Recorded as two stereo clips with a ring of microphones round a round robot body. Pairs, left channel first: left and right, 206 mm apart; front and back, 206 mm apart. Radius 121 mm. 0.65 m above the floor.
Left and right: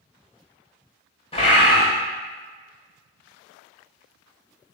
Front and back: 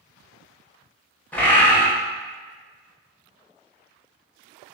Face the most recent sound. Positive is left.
turn(degrees=75)